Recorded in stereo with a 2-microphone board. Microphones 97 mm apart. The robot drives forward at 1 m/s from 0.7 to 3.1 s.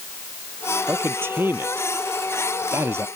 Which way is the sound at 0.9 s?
20° right (ahead or behind).